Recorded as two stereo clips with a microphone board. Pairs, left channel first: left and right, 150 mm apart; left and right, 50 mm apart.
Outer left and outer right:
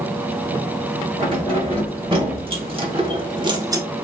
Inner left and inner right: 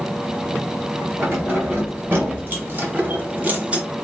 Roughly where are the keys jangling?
Right.